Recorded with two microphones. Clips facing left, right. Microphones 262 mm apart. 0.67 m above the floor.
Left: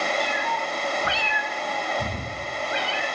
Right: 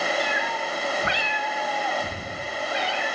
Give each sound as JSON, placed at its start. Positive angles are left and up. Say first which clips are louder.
{"t": 0.2, "sound": "a cat meowing", "louder": "even", "side_deg": -70, "distance_m": 1.0}